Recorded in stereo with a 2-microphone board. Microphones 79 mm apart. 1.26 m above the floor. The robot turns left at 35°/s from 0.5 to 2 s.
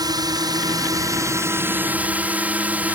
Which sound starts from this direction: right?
A drone, at 0.0 s.